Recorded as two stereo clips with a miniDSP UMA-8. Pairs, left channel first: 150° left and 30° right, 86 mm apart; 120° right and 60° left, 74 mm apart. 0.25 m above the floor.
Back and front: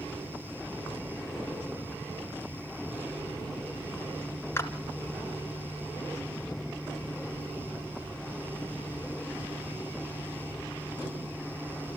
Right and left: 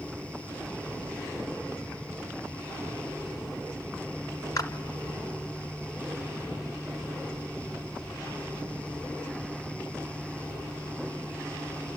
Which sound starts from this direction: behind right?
A clap, at 4.6 s.